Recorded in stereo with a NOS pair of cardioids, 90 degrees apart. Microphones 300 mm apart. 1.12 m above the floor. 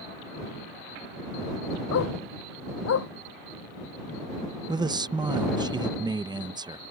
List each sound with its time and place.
1.9 s a dog barking: 55° left
4.7 s a man speaking: 15° right